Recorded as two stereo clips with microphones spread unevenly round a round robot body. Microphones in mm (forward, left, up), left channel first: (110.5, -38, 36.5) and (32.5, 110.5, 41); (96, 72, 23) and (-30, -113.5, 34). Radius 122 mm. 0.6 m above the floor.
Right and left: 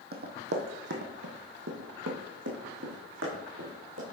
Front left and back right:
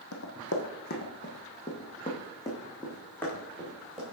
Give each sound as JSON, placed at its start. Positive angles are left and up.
{"t": 0.1, "sound": "running footsteps", "azimuth_deg": 95, "distance_m": 1.8}